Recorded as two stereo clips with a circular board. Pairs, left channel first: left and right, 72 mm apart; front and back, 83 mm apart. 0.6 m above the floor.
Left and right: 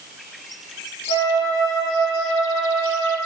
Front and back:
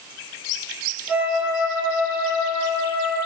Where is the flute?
100° left, 4 m.